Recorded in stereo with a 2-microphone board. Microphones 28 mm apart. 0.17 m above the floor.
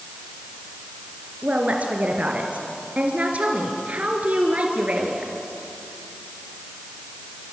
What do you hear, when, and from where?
1.4 s a woman speaking: 55° right (ahead or behind), 3 m